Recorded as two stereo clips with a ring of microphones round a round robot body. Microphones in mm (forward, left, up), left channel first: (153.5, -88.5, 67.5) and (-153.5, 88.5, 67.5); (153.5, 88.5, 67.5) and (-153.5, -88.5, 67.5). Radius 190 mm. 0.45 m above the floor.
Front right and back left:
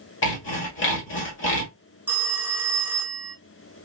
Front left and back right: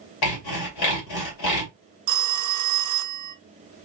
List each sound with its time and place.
0.2 s sawing: 25° left, 1.9 m
2.1 s a phone ringing: 125° right, 0.6 m